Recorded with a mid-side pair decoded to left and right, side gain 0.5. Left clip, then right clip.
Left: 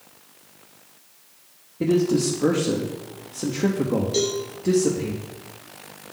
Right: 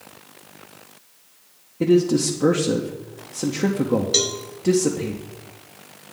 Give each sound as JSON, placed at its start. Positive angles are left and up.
{"t": 1.8, "sound": "a man speaking", "azimuth_deg": -20, "distance_m": 0.9}
{"t": 4.1, "sound": "a cowbell", "azimuth_deg": -70, "distance_m": 1.2}